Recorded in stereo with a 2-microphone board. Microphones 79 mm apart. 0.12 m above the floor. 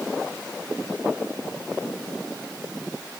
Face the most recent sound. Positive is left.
No sound to turn to.